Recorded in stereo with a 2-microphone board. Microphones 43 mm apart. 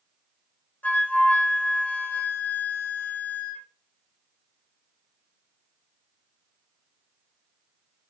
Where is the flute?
40° left (ahead or behind), 0.6 m.